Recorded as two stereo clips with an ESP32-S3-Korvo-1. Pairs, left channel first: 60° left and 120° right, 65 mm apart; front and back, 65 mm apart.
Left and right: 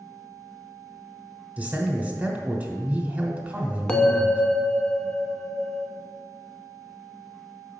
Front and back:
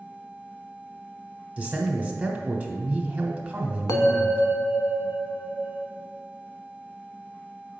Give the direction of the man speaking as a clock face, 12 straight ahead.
5 o'clock.